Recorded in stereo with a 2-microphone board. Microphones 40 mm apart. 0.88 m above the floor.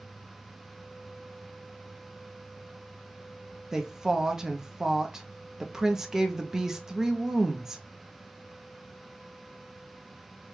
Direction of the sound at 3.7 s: 10° right (ahead or behind).